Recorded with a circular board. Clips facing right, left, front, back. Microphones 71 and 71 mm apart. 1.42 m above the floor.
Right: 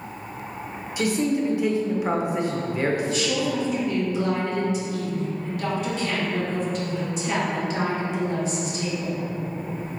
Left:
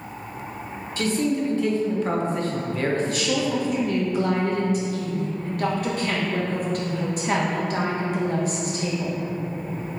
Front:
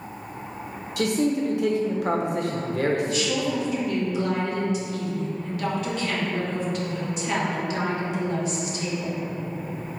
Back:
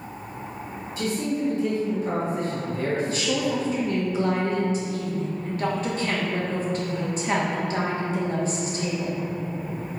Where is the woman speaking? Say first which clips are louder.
Left 1 dB, even; 130° left, 1.4 m.